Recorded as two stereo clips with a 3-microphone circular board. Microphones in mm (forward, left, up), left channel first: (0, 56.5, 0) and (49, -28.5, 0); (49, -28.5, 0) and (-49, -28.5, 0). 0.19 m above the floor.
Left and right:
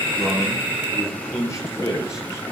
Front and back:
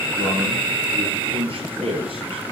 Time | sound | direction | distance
0.2 | a man speaking | 175° left | 4 m